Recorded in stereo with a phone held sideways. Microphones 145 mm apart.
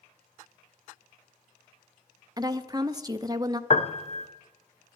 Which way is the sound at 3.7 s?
45° left (ahead or behind).